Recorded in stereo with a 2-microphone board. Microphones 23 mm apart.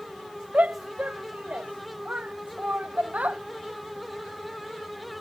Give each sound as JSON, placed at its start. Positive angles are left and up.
{"t": 0.5, "sound": "a shout", "side_deg": -85}